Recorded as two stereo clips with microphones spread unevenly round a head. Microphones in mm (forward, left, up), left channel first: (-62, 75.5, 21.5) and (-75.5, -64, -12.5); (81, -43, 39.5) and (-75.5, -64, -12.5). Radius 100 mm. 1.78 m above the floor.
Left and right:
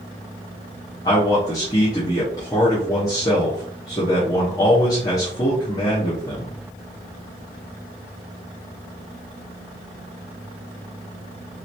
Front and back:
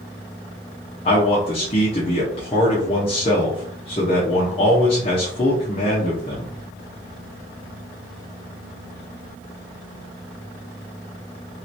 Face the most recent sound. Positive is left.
turn(degrees=35)